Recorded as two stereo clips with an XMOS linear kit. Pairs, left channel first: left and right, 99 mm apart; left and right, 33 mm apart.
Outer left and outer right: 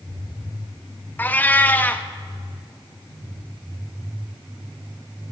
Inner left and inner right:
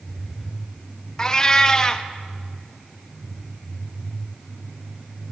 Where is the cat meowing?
15° left (ahead or behind), 0.6 m.